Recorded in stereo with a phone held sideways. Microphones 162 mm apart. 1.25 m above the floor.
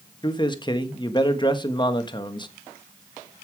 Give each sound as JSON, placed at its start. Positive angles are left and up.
{"t": 0.2, "sound": "a man speaking", "side_deg": 30, "distance_m": 1.4}